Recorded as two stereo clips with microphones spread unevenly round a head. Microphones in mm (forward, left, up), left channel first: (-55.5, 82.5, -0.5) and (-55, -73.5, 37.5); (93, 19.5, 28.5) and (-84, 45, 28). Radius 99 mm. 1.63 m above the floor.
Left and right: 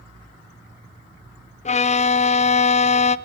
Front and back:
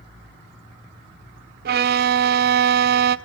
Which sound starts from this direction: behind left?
A violin, at 1.6 s.